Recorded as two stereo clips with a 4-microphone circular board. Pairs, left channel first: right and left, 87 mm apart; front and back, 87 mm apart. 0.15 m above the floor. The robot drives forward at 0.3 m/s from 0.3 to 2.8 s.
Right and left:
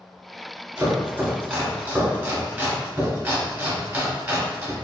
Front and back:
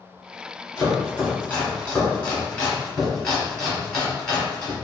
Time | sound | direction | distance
0.8 | chopping | 40° left | 1.9 m